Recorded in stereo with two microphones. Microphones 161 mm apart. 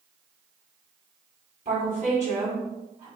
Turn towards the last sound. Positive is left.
turn(degrees=-45)  # may be behind; listen again after turning